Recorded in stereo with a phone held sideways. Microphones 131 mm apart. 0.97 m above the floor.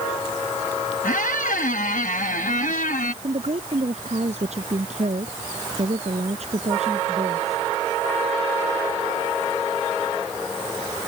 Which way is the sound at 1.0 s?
80° left.